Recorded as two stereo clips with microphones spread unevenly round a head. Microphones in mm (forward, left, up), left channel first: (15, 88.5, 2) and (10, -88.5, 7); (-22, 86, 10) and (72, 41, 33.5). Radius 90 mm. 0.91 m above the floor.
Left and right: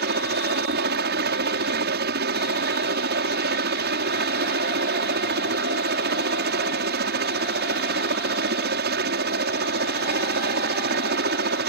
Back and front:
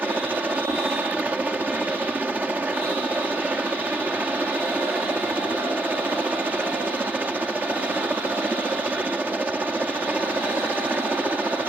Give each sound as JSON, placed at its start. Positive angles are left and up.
{"t": 0.0, "sound": "a helicopter", "azimuth_deg": -110}